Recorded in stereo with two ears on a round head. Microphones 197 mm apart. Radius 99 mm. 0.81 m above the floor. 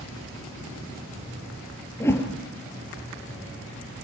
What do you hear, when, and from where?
2.0 s a whoosh: 10° left (ahead or behind), 3.5 m